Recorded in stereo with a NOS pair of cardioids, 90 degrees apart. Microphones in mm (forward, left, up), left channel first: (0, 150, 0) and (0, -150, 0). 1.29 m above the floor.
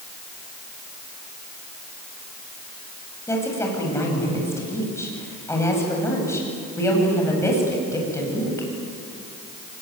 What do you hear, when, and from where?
3.3 s a woman speaking: 10° left, 9.5 m